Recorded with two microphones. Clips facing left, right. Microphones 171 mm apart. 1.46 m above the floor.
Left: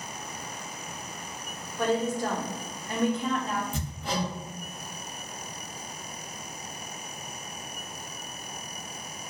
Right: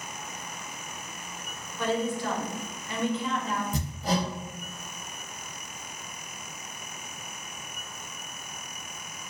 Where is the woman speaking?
45° left (ahead or behind), 0.6 m.